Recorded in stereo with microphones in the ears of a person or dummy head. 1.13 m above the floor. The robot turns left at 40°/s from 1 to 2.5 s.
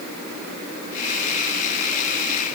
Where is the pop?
I don't hear a pop.